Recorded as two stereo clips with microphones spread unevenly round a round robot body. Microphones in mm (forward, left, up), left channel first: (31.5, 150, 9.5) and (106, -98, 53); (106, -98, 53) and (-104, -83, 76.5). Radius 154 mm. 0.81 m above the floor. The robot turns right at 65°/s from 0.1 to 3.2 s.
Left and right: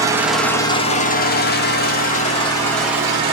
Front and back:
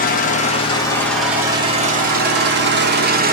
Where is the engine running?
10° left, 0.9 m; by 3.3 s 150° right, 0.9 m.